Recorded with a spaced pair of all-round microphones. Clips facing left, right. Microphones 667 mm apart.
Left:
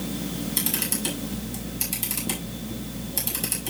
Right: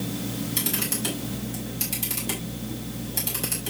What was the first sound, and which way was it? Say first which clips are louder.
A camera shutter: even; 75° right (ahead or behind).